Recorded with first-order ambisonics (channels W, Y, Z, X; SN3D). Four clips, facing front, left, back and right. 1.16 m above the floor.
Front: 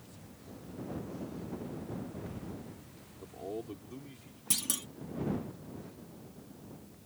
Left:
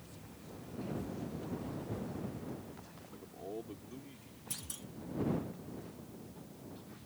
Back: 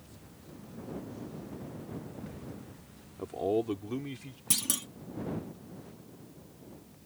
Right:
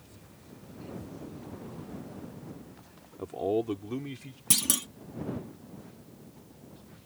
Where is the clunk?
100° right.